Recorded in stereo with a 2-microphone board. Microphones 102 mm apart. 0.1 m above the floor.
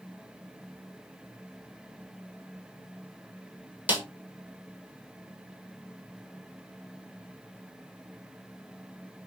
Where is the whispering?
I don't hear whispering.